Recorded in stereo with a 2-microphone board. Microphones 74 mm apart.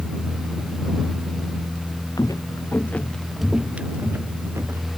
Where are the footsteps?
55° left (ahead or behind); by 4.9 s 40° right (ahead or behind).